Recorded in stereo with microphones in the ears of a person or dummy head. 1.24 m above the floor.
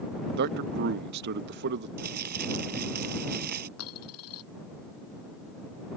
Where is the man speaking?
55° right (ahead or behind).